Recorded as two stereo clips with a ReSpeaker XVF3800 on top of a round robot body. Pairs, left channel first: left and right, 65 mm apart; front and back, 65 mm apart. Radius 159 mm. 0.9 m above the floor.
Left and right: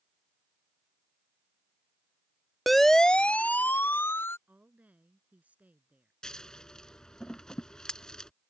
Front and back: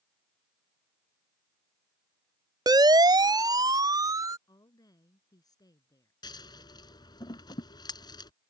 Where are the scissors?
10° left.